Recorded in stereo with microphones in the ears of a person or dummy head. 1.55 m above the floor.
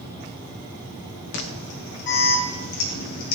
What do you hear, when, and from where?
1.3 s an alarm: 60° left (ahead or behind), 1.4 m